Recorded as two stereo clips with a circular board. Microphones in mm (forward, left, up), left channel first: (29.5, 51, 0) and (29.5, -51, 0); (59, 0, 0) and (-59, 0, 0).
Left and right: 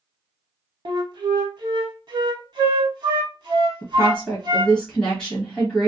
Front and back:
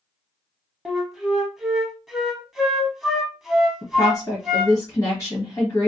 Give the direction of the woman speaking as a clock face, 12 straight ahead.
11 o'clock.